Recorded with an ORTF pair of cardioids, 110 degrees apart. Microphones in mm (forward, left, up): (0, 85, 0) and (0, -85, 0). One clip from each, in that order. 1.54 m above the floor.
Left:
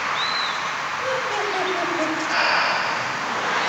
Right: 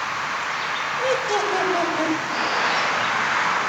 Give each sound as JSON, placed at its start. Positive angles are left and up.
{"t": 1.0, "sound": "laughter", "azimuth_deg": -70, "distance_m": 5.5}
{"t": 2.3, "sound": "breathing", "azimuth_deg": 40, "distance_m": 0.9}